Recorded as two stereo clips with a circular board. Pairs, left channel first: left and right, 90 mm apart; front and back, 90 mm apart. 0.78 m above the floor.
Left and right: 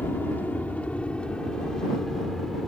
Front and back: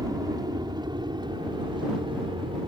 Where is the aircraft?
155° left; by 2.7 s straight behind.